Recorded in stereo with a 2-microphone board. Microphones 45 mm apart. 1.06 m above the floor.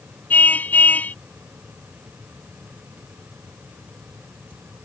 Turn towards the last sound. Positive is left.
turn(degrees=40)  # may be behind; listen again after turning